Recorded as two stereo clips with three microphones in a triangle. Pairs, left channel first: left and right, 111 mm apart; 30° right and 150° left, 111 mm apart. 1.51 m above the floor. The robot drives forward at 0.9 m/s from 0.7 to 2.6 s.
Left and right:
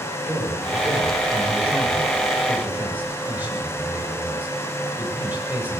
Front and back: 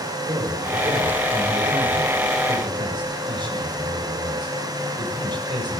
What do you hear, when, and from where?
0.3 s a man speaking: 160° right, 6.5 m; by 5.8 s 165° right, 8 m